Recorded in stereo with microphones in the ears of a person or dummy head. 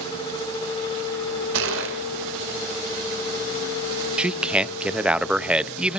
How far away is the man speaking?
About 0.6 m.